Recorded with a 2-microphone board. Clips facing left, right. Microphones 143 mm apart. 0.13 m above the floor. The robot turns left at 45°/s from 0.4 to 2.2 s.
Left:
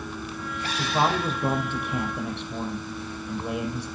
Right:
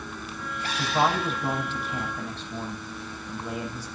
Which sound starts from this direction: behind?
A man speaking, at 0.8 s.